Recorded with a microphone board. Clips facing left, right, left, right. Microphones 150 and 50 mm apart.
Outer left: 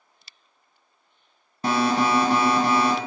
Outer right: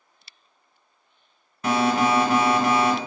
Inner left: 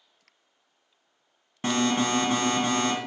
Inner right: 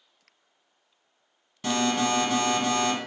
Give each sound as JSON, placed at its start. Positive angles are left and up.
{"t": 1.6, "sound": "an alarm", "side_deg": 35, "distance_m": 0.9}